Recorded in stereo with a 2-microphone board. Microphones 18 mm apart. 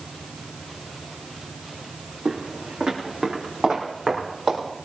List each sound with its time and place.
2.2 s footsteps: 70° right (ahead or behind), 3.5 m; by 4.6 s 65° right (ahead or behind), 6.5 m